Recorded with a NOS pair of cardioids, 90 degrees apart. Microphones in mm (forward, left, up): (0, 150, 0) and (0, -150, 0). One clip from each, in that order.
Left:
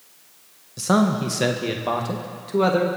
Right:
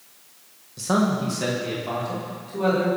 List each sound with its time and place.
0.8 s a man speaking: 25° left, 1.6 m; by 2.9 s 70° left, 3 m